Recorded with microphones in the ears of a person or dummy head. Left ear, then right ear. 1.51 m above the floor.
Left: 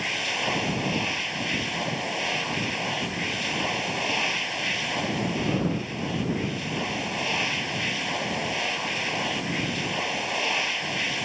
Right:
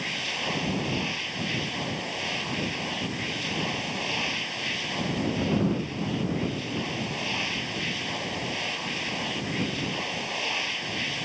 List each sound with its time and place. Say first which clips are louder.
0.0 s a machine running: left 3 dB; 25° left (ahead or behind)